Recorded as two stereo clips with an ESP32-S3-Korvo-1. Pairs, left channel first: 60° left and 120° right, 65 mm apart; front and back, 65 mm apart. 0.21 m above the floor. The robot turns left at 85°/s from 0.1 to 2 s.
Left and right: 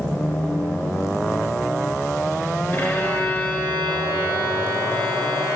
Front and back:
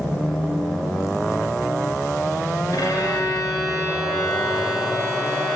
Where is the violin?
10° left, 1.2 m.